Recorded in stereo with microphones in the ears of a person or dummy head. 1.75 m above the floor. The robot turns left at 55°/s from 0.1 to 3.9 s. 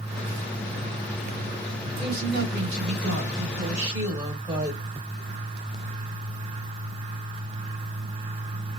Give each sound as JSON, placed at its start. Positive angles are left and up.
{"t": 2.0, "sound": "a woman speaking", "azimuth_deg": -45, "distance_m": 1.6}